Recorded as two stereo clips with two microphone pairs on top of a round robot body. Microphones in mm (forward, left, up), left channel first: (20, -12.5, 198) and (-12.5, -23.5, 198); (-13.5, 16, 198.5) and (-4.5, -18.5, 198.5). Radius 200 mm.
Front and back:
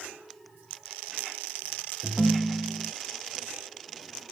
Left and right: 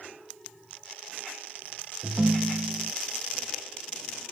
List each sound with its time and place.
2.0 s a ringtone: 45° right